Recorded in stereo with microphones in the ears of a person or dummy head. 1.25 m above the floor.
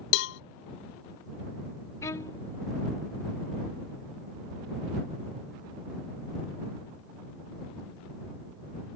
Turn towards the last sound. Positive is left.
turn(degrees=15)  # may be behind; listen again after turning